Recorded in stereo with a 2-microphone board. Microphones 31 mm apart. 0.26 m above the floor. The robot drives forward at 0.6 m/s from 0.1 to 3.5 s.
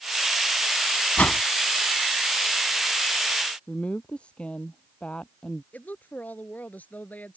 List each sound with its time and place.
1.2 s a whoosh: 65° left (ahead or behind); by 1.4 s 55° left (ahead or behind)
3.7 s a woman speaking: 40° left (ahead or behind)
5.7 s a woman speaking: 65° left (ahead or behind)